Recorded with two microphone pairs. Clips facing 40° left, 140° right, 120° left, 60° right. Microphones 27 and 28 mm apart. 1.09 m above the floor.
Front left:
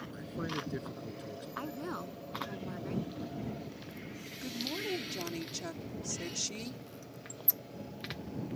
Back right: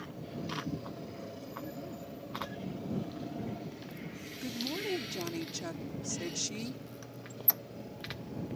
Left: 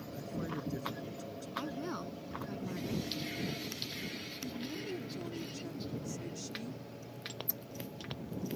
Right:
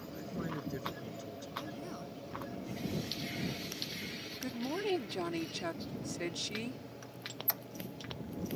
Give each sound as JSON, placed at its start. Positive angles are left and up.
{"t": 0.1, "sound": "a man speaking", "azimuth_deg": 15}
{"t": 1.6, "sound": "a woman speaking", "azimuth_deg": 60}
{"t": 4.4, "sound": "a woman speaking", "azimuth_deg": -50}
{"t": 7.0, "sound": "a squeak", "azimuth_deg": -90}